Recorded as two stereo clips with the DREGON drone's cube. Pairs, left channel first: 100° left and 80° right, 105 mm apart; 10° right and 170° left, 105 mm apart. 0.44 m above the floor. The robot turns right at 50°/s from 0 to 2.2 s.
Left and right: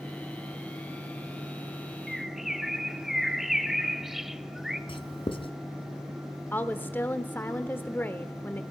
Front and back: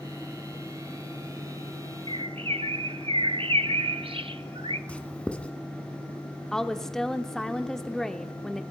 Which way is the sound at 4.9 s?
70° left.